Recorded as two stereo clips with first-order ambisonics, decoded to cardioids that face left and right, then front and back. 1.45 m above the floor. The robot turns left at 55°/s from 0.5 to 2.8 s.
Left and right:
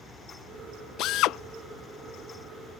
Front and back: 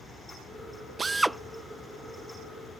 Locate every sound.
1.0 s a drill: 110° left; by 1.4 s 90° left